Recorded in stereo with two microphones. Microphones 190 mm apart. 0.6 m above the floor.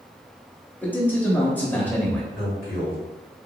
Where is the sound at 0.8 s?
10° left (ahead or behind), 0.7 m.